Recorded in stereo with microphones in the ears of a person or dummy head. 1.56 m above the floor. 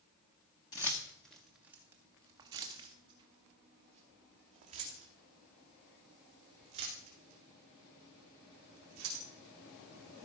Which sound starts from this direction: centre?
Keys jangling, at 0.7 s.